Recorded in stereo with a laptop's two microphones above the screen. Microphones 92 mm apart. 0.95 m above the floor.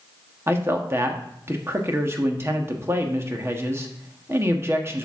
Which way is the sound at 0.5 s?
30° right (ahead or behind).